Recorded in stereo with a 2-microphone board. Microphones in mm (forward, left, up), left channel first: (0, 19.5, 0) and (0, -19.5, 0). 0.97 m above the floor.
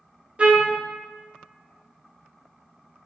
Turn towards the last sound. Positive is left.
turn(degrees=-30)  # may be behind; listen again after turning